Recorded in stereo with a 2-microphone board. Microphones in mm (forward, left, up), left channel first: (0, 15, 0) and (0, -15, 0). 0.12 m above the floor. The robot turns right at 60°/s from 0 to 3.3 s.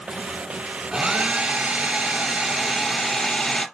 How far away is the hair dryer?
About 1.6 m.